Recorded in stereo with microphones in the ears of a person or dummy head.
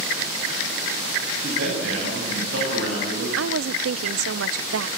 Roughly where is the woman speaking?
Right.